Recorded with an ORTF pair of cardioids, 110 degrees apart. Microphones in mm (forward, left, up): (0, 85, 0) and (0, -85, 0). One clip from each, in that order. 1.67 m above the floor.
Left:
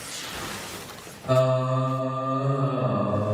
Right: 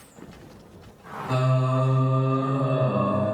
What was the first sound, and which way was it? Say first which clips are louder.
Singing: left 5 dB; 60° left.